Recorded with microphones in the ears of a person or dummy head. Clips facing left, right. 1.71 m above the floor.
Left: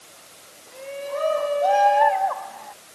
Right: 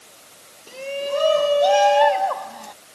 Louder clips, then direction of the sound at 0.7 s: Right 5 dB; 50° right (ahead or behind).